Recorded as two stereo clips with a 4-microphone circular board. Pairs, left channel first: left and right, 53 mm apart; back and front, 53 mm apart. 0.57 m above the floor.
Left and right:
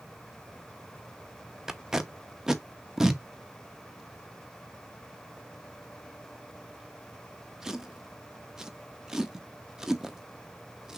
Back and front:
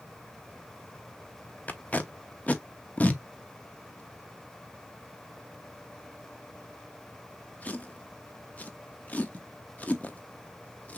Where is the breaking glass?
I don't hear breaking glass.